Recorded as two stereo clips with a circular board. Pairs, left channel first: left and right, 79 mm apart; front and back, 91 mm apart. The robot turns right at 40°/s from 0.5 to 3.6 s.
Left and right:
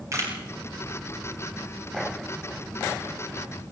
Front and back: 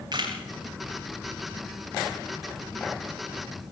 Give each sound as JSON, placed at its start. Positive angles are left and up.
{"t": 0.1, "sound": "a camera shutter", "azimuth_deg": -140, "distance_m": 7.5}